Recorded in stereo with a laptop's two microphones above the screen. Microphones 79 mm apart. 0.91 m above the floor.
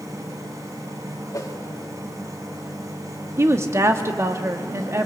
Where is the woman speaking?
35° right (ahead or behind), 1.6 m.